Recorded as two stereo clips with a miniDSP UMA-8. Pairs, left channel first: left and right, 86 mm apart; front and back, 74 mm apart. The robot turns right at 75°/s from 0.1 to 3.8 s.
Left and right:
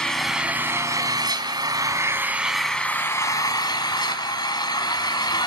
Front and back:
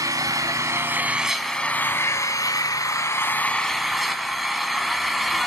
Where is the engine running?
170° left, 1.7 m; by 5.5 s 90° left, 1.7 m.